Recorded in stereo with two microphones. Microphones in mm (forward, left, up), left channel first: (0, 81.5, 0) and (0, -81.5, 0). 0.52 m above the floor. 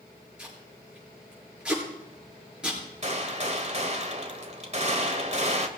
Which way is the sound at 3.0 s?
45° right (ahead or behind).